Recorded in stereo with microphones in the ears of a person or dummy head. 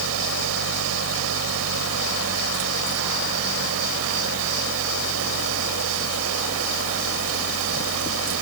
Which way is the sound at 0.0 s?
85° right.